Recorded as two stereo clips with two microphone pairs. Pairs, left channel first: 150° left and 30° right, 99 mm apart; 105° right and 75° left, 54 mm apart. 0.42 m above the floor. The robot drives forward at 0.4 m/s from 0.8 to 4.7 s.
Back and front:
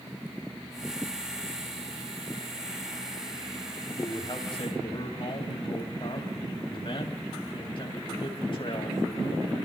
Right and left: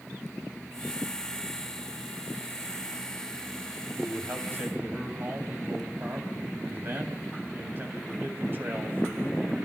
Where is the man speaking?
115° left, 3 m; by 9.6 s 120° left, 3 m.